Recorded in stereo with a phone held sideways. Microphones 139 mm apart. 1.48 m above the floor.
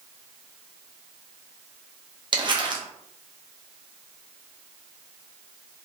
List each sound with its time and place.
2.3 s crumpling: 35° right (ahead or behind), 0.7 m